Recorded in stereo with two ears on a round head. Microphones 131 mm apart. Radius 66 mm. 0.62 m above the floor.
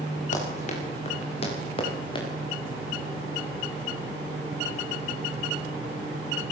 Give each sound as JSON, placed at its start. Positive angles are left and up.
{"t": 0.3, "sound": "running footsteps", "side_deg": 55, "distance_m": 8.0}